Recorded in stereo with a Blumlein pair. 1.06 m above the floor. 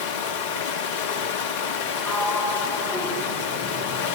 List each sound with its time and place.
0.0 s running water: 55° left, 1.0 m
2.0 s a sliding door: 10° left, 7 m